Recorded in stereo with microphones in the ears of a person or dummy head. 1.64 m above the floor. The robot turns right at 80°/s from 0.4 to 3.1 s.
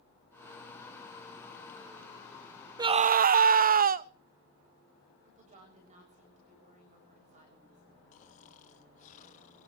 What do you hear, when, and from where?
2.8 s a scream: 15° right (ahead or behind), 0.6 m; by 4.1 s 40° right (ahead or behind), 0.6 m
5.2 s a woman speaking: 35° right (ahead or behind), 7 m
8.1 s snoring: 40° left (ahead or behind), 2 m